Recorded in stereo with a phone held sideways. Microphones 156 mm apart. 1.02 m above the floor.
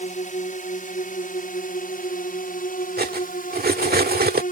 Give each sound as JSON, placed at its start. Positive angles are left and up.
{"t": 0.0, "sound": "a drone", "side_deg": 55}
{"t": 3.0, "sound": "cutlery clinking", "side_deg": -80}